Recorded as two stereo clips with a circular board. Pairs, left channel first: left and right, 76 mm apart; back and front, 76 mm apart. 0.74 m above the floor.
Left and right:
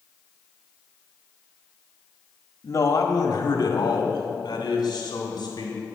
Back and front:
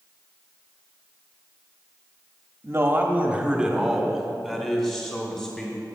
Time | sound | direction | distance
2.6 | a man speaking | 50° left | 1.1 m